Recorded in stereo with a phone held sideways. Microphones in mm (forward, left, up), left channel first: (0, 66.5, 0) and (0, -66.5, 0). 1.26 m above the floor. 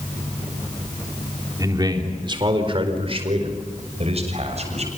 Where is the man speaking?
30° right (ahead or behind), 3.5 m; by 4.9 s 55° right (ahead or behind), 7 m.